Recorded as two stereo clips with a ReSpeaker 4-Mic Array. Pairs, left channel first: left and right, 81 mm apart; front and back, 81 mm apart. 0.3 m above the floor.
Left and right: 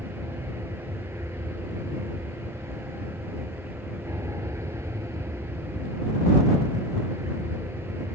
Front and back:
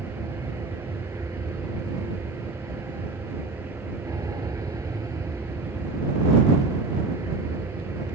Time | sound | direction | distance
0.0 | an aircraft | 140° right | ?